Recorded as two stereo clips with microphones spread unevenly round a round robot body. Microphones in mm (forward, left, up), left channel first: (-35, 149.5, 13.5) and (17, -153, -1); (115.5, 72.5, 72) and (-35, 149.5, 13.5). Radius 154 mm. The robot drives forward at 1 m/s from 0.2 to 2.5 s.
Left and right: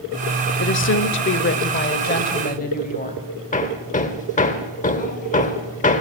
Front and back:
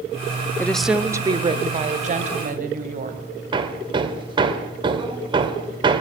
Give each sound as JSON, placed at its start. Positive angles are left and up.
{"t": 0.6, "sound": "a woman speaking", "azimuth_deg": 75, "distance_m": 1.0}
{"t": 3.5, "sound": "hammering", "azimuth_deg": 160, "distance_m": 1.4}